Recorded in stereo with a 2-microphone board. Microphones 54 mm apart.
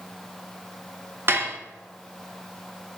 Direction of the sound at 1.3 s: 45° right (ahead or behind).